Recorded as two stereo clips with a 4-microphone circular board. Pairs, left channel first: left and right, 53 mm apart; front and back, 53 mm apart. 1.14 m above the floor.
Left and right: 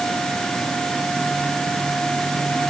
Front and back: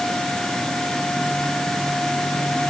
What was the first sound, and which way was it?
Only background noise.